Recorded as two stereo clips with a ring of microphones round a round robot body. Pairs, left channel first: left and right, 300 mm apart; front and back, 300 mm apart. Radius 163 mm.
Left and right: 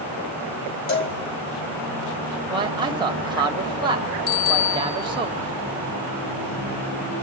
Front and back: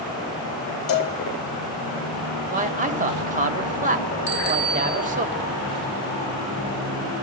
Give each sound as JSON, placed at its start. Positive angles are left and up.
{"t": 0.9, "sound": "a cowbell", "azimuth_deg": 45, "distance_m": 3.0}
{"t": 2.5, "sound": "a man speaking", "azimuth_deg": -150, "distance_m": 1.4}
{"t": 4.3, "sound": "a bicycle bell", "azimuth_deg": 55, "distance_m": 5.5}